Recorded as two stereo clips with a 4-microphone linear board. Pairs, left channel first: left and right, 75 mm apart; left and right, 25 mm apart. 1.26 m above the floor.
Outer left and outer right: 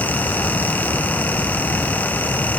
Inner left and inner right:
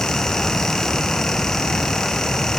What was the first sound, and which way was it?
Only background noise.